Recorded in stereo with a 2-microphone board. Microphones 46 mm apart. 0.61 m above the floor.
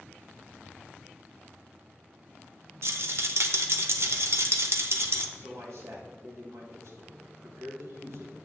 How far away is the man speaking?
About 3 m.